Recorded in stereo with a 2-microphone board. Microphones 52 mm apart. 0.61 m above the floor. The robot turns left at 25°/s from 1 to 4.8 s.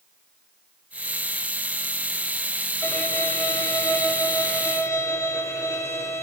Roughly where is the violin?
Behind left.